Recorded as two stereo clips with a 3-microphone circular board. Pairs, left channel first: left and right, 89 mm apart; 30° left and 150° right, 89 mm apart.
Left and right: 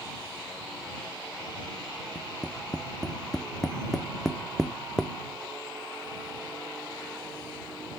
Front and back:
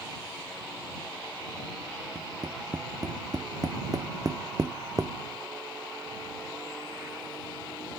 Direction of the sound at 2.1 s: 175° left.